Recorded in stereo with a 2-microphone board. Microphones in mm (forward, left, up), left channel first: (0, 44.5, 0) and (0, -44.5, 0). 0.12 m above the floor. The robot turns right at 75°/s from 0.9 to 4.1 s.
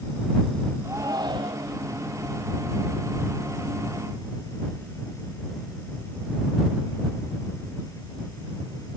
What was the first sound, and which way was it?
A shout, 145° right.